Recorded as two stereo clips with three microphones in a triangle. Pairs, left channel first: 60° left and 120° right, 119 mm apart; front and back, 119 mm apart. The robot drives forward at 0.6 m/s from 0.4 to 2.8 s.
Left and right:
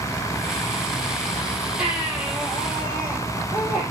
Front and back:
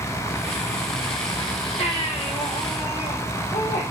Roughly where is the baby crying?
Ahead right.